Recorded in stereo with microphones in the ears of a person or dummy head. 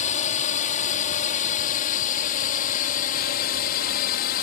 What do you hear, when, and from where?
0.0 s a drone: 35° left (ahead or behind); by 4.4 s 45° left (ahead or behind)